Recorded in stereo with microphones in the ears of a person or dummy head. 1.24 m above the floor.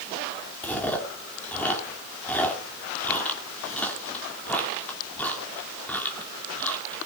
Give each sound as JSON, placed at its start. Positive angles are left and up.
{"t": 0.6, "sound": "chewing", "side_deg": 10, "distance_m": 2.5}